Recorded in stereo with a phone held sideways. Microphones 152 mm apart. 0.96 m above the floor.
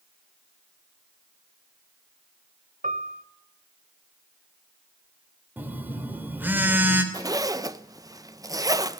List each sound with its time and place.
2.8 s a piano: 65° right (ahead or behind), 1.2 m
5.6 s a phone buzzing: 10° right (ahead or behind), 2.5 m
7.1 s a zipper: 25° right (ahead or behind), 0.7 m